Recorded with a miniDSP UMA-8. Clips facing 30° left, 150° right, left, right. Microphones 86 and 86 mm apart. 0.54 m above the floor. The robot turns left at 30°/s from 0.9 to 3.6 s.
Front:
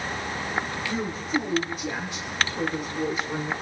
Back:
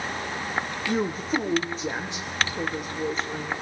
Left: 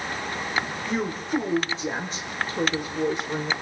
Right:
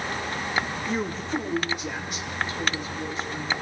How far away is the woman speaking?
About 1.4 m.